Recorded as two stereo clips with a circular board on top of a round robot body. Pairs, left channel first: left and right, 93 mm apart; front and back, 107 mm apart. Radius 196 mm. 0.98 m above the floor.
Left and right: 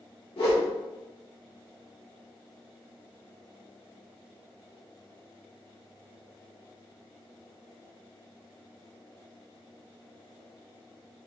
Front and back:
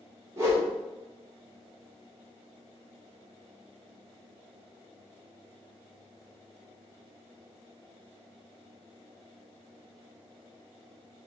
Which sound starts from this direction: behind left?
A whoosh, at 0.4 s.